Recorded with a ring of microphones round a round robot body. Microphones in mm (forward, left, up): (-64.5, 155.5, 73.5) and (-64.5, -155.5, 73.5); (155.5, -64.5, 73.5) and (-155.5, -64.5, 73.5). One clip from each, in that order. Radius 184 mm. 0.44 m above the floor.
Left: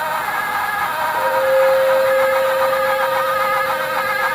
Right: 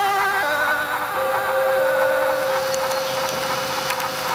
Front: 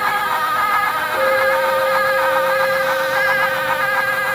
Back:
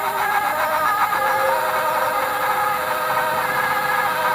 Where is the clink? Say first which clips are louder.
Left 6 dB, front 3 dB; 30° left, 3 m.